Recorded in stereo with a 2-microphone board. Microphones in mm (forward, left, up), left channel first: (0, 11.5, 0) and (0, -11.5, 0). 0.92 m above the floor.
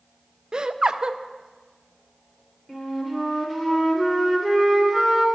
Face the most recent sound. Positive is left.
turn(degrees=10)  # may be behind; listen again after turning